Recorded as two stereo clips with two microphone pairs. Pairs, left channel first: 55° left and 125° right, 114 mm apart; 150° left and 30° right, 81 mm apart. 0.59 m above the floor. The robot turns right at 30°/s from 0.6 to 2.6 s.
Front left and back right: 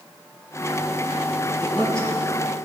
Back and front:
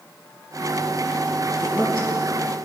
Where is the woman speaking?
125° left, 3 m; by 2.1 s 140° left, 3 m.